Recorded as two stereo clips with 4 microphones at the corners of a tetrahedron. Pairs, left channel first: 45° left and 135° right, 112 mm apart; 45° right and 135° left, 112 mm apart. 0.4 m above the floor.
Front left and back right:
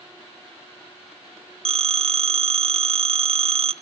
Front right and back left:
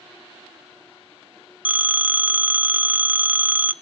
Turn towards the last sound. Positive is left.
turn(degrees=-155)